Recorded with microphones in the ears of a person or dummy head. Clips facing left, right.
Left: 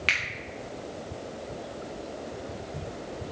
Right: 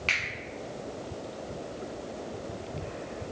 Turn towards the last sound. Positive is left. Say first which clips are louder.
# left 1 dB
turn(degrees=20)  # may be behind; listen again after turning